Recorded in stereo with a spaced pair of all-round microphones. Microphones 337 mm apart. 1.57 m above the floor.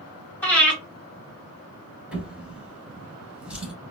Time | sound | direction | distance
0.4 | breathing | 5° left (ahead or behind) | 2 m
2.1 | a drawer | 5° right (ahead or behind) | 2.5 m